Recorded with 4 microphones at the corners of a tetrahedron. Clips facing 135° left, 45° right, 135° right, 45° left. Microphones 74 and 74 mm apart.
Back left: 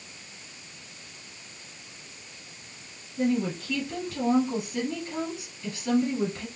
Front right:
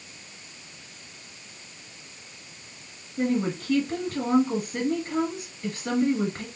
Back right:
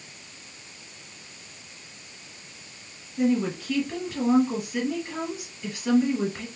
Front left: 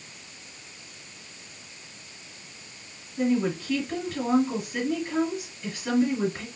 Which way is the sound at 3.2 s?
45° right.